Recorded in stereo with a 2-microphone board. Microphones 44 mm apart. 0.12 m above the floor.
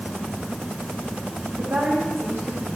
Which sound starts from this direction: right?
A woman speaking, at 1.6 s.